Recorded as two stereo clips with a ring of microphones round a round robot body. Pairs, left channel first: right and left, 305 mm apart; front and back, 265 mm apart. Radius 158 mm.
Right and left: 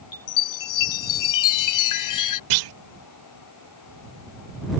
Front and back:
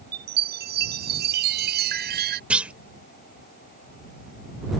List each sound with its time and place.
0.1 s a chime: 120° right
2.5 s a clunk: 95° left